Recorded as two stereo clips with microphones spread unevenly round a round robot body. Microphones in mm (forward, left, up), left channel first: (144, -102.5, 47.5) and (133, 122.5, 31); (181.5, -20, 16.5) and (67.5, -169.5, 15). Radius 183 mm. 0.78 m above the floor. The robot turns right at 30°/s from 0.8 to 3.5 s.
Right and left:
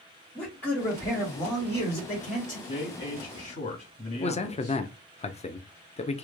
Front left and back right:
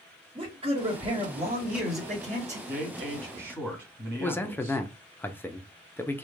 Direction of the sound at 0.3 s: 175° right.